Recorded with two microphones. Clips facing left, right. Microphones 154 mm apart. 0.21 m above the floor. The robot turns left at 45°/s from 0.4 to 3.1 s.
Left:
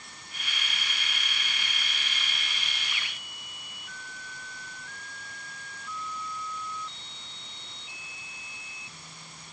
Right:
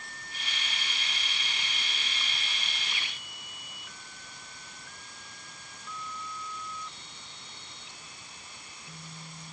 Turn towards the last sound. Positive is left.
No sound to turn to.